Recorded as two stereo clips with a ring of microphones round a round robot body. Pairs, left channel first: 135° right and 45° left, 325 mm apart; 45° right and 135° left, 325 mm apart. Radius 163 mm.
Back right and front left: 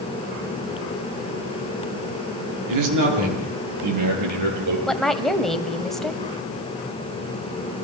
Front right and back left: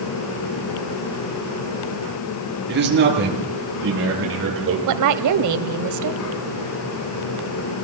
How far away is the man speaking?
About 6.5 m.